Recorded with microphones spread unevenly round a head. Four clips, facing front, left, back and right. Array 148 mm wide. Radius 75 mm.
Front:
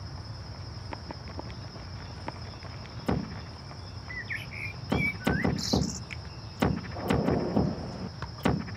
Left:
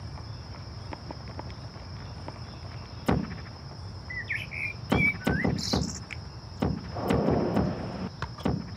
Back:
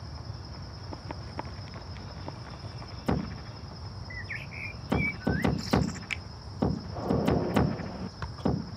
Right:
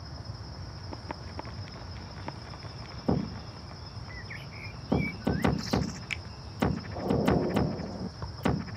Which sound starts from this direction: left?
A bird, at 4.1 s.